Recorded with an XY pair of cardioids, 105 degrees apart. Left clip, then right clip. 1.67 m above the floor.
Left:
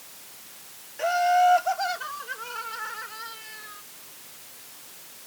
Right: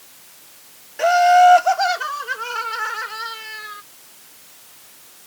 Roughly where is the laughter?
Ahead right.